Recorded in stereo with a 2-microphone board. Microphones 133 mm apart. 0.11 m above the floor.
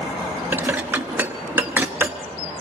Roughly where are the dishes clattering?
Centre.